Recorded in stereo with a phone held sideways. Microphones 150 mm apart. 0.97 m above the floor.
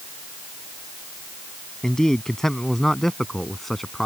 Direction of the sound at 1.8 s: 5° left (ahead or behind).